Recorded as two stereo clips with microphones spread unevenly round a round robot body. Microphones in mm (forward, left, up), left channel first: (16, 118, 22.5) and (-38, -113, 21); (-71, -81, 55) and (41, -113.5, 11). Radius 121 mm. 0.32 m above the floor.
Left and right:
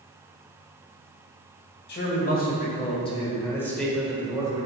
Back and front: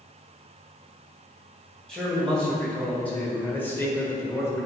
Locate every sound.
1.9 s a man speaking: 55° left, 1.9 m; by 4.7 s 105° right, 1.4 m